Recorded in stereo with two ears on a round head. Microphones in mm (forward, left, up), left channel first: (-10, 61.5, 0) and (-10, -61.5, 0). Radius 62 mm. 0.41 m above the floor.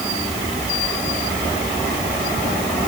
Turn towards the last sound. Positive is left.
No sound to turn to.